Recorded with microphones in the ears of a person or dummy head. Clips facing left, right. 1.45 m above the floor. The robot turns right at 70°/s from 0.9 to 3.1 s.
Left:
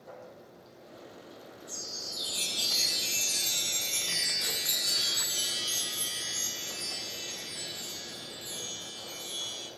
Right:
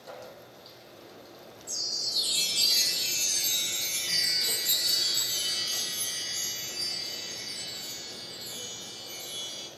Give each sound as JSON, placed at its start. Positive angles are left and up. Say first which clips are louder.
{"t": 1.7, "sound": "a chime", "louder": "even", "azimuth_deg": -90, "distance_m": 0.7}